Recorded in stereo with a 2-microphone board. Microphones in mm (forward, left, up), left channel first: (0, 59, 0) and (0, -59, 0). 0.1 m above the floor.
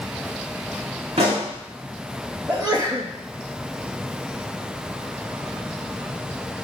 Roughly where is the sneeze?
Right.